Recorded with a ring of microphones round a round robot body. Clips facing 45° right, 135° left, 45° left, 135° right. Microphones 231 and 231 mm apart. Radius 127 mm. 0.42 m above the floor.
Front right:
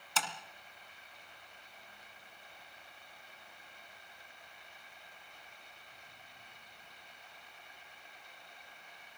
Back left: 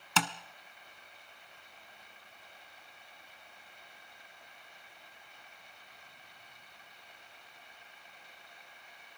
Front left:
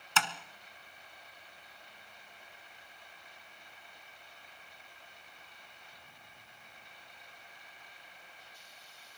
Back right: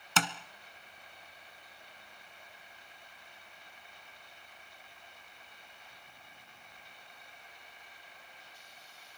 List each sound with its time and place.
0.2 s tapping: 170° left, 1.1 m